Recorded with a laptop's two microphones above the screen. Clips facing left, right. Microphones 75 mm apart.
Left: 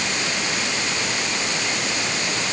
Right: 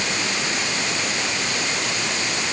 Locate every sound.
Only background noise.